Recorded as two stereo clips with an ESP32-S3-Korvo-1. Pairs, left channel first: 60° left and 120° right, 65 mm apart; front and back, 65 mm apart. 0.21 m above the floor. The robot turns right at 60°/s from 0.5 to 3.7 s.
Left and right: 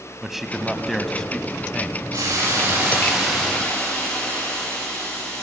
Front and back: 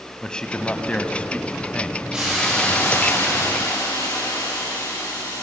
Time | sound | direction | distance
0.2 | a man speaking | 40° right | 1.3 m
2.1 | a hiss | 105° right | 8.5 m